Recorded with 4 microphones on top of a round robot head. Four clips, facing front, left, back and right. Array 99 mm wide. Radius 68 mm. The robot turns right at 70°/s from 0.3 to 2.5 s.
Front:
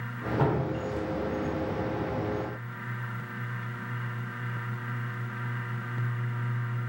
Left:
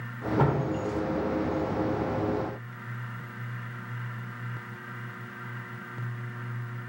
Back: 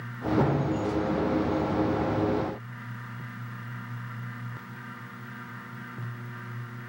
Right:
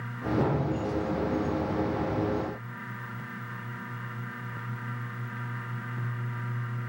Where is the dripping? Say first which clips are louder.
Left 2 dB, back 1 dB; 90° left, 4 m; by 0.9 s 125° left, 4 m.